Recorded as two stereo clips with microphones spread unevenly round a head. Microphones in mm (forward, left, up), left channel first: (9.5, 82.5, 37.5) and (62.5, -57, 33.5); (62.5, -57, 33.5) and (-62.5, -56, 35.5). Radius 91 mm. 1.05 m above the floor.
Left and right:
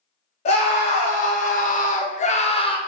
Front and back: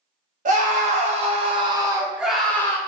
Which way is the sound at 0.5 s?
160° left.